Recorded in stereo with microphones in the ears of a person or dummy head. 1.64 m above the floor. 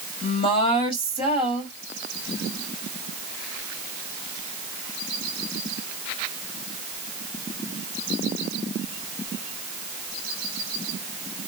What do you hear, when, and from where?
0.2 s a woman speaking: 40° left (ahead or behind), 1.9 m